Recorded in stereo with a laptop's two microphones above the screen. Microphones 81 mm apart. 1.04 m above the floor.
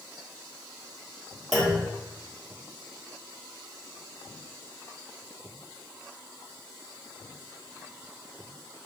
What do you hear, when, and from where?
1.5 s a clunk: centre (ahead or behind), 2.5 m